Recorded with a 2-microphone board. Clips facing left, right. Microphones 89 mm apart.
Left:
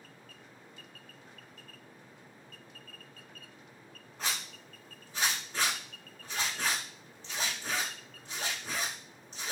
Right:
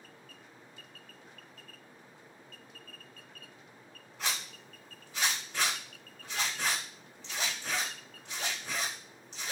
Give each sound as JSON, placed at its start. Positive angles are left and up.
{"t": 4.2, "sound": "a zipper", "side_deg": 40, "distance_m": 1.5}